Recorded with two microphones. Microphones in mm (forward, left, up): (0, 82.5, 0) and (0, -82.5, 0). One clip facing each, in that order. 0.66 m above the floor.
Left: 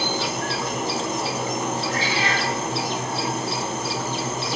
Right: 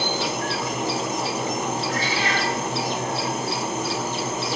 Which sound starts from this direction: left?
A cat meowing, at 1.9 s.